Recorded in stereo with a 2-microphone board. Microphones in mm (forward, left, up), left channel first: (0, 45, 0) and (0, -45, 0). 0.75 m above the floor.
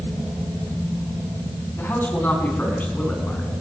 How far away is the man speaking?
About 5.5 m.